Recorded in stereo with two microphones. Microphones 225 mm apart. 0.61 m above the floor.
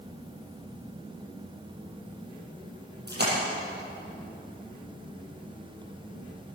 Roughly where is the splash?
Right.